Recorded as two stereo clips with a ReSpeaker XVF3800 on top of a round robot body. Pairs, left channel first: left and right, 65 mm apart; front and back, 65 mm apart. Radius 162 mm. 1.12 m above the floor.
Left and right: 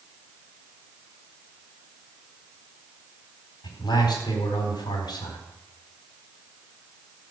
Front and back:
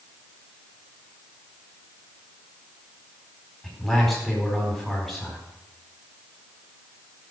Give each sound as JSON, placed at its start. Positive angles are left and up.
{"t": 3.6, "sound": "a man speaking", "azimuth_deg": 90, "distance_m": 4.5}